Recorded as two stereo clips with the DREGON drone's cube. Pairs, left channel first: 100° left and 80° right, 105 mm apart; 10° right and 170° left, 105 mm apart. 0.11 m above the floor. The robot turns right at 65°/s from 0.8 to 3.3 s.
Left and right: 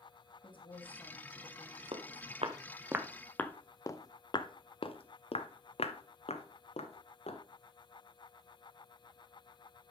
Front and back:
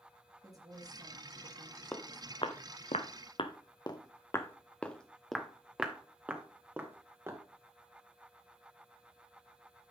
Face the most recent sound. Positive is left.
turn(degrees=105)